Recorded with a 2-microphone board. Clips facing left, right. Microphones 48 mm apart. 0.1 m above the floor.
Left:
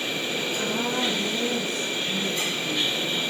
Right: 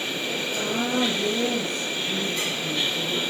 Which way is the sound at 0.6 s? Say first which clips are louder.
Right 3 dB; 55° right (ahead or behind).